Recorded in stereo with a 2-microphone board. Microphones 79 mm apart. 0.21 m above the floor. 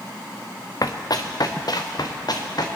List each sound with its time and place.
0.8 s running footsteps: 50° left (ahead or behind), 1.0 m; by 2.7 s 60° left (ahead or behind), 2 m